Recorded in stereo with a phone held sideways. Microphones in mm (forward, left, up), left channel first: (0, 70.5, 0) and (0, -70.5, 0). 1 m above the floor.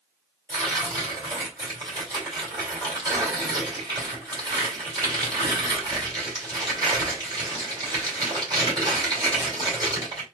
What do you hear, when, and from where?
0.5 s tearing paper: 30° right (ahead or behind), 3 m